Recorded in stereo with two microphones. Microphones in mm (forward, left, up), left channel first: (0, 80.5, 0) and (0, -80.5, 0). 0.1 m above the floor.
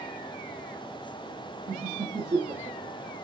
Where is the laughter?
45° right (ahead or behind), 3 m; by 3.2 s 15° right (ahead or behind), 2.5 m.